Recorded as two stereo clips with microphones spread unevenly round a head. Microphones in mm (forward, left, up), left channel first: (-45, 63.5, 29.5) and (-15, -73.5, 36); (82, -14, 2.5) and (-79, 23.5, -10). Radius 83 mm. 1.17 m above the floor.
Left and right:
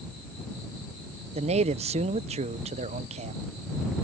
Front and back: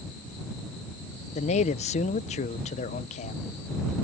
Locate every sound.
1.4 s a man speaking: 55° right